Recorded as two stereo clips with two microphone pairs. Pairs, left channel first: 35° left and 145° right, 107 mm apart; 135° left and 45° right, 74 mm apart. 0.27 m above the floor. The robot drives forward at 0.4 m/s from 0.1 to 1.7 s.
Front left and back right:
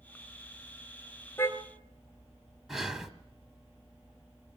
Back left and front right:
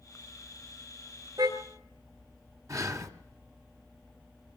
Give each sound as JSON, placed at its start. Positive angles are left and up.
{"t": 1.4, "sound": "a car horn", "azimuth_deg": -30, "distance_m": 2.5}
{"t": 2.7, "sound": "breathing", "azimuth_deg": -60, "distance_m": 1.7}